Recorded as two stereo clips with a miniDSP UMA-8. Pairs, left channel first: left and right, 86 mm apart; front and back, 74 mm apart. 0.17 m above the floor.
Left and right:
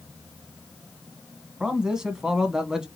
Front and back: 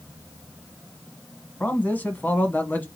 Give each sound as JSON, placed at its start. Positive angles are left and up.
{"t": 1.6, "sound": "a man speaking", "azimuth_deg": -20, "distance_m": 1.1}